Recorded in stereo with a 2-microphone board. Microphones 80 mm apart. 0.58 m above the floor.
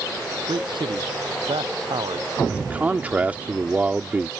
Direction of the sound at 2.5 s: 20° right (ahead or behind).